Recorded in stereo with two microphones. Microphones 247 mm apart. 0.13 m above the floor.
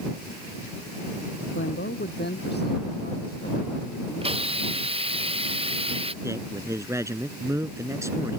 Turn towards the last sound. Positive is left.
turn(degrees=-10)  # may be behind; listen again after turning